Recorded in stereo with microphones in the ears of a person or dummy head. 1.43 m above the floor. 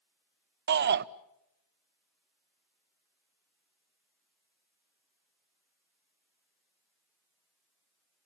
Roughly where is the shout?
Right.